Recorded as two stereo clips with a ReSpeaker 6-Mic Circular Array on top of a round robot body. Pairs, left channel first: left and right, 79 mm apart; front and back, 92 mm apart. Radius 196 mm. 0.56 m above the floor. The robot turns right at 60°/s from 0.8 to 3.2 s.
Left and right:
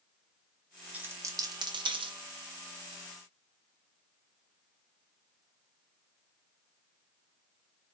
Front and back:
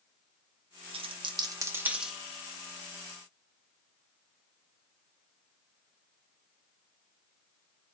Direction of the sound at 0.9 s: 165° right.